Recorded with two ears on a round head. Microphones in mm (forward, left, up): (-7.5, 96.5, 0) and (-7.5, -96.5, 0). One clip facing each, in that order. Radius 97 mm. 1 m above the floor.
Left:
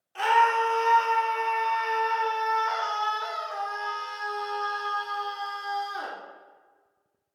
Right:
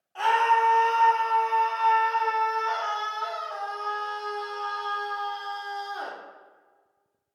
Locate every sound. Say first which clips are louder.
0.1 s a scream: even; 35° left (ahead or behind), 2.5 m